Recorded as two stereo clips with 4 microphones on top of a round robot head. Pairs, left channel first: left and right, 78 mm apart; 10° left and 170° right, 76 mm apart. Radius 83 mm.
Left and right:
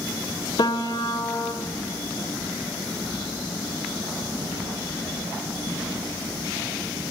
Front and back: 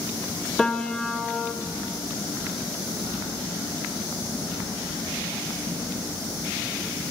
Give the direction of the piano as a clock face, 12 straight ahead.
9 o'clock.